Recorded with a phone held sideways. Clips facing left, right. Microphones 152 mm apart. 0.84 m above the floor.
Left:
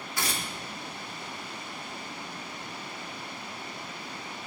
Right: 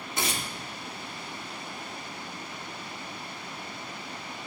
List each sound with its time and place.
0.2 s tearing paper: 20° right (ahead or behind), 2 m